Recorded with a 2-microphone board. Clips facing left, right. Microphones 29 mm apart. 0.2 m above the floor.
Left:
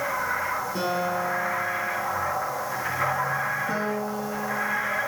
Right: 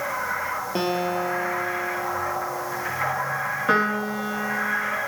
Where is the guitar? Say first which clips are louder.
Right 4 dB; 45° right (ahead or behind), 4 m.